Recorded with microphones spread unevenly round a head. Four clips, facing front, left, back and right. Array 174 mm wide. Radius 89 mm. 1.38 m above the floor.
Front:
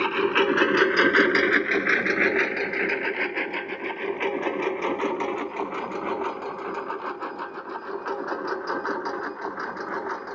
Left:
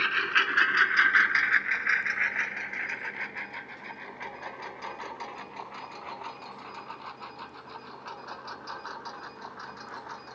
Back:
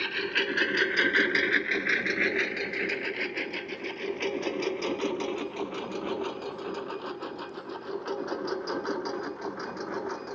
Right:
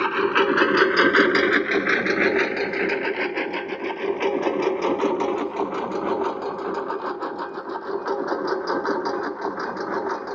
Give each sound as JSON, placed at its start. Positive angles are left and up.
{"t": 0.0, "sound": "a lawn mower", "azimuth_deg": -45}